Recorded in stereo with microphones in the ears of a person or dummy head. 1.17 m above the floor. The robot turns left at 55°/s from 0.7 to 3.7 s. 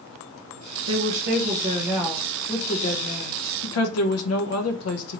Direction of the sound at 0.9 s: 105° right.